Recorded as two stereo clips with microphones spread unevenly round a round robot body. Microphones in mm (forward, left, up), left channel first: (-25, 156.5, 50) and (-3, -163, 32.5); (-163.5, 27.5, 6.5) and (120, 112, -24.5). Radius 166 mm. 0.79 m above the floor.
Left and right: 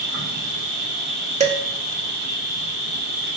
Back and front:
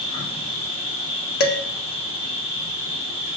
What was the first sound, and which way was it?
An insect, 90° right.